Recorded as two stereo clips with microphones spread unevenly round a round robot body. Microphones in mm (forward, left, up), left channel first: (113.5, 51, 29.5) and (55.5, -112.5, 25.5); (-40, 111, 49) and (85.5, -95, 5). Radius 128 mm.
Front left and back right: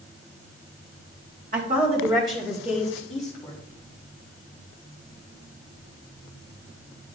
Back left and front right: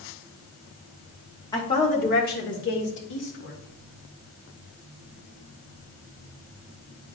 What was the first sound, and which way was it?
A woman speaking, 160° right.